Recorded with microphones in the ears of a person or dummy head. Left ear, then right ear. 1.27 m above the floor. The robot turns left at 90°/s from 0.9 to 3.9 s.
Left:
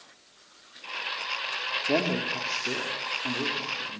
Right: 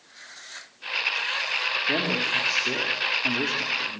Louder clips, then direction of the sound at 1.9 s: Right 1 dB; 50° left.